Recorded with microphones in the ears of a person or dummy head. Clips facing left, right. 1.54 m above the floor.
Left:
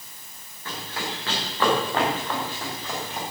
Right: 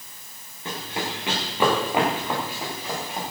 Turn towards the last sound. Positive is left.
turn(degrees=-10)  # may be behind; listen again after turning